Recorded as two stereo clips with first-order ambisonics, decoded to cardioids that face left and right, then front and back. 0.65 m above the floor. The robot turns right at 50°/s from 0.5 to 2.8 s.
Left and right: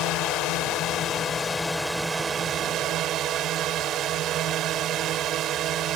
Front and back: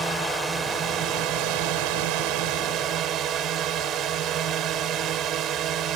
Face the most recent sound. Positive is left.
turn(degrees=-135)